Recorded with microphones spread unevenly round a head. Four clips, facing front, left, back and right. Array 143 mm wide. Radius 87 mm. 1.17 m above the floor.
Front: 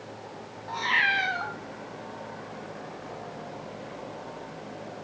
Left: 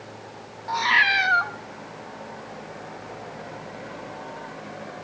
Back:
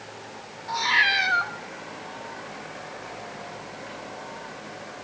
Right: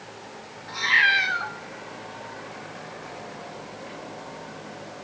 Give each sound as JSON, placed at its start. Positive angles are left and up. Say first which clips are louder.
{"t": 0.7, "sound": "a cat meowing", "louder": "left 1 dB, back 3 dB", "azimuth_deg": 70, "distance_m": 0.8}